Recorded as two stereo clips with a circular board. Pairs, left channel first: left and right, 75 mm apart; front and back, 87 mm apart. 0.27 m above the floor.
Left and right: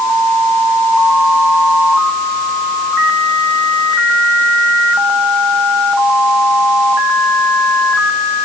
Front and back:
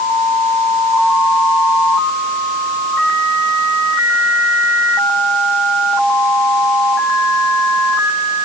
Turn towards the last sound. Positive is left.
No sound to turn to.